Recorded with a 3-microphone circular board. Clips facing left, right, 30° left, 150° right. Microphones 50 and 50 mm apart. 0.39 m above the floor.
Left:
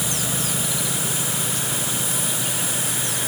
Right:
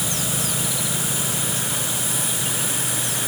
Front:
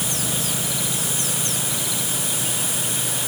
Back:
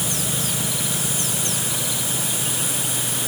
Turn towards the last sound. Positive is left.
No sound to turn to.